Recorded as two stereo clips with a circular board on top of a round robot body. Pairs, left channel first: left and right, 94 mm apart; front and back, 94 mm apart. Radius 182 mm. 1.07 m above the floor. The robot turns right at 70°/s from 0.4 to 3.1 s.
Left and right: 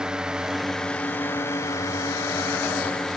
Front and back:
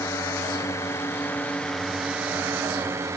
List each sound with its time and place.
0.0 s a drone: 15° right; by 3.2 s 175° left